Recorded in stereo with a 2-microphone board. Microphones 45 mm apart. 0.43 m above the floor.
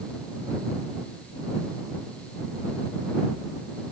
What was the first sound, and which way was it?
Only background noise.